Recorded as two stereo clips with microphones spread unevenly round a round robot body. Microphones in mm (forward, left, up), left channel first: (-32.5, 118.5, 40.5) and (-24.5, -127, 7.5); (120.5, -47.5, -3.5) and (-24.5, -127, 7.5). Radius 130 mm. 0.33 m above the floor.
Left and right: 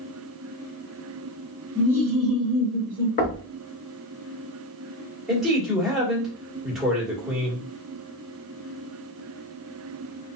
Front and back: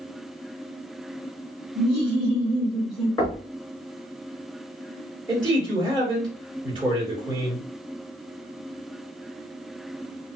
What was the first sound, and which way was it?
Laughter, 170° left.